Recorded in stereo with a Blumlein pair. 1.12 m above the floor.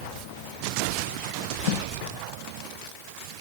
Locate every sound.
1.7 s tape being pulled: 45° left, 0.9 m